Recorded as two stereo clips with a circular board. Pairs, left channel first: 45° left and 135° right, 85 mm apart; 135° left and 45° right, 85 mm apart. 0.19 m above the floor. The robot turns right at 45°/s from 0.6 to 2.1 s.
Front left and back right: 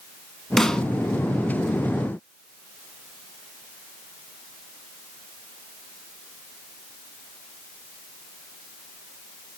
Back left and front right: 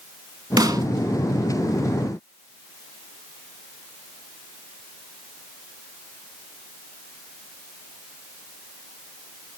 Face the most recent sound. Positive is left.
turn(degrees=30)